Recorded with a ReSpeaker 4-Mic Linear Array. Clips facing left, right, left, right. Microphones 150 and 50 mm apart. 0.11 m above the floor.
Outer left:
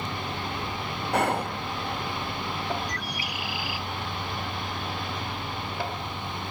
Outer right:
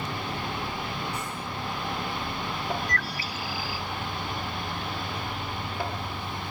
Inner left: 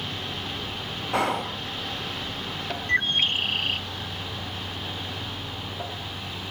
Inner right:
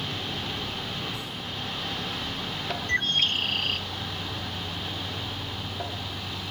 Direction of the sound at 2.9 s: 15° left (ahead or behind).